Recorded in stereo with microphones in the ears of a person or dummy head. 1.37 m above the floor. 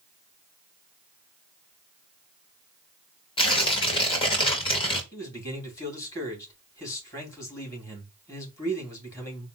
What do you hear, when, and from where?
3.4 s tearing paper: 25° left (ahead or behind), 1.0 m
5.1 s a man speaking: 15° left (ahead or behind), 2.5 m